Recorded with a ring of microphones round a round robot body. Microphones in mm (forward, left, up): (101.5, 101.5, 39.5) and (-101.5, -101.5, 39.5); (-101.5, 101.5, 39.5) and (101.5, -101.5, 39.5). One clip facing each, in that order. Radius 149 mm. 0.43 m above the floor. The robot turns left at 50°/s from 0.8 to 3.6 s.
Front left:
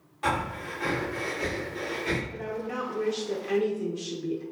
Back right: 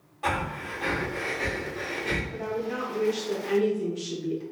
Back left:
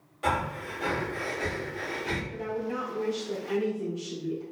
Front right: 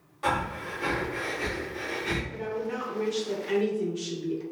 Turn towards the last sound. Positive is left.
turn(degrees=-60)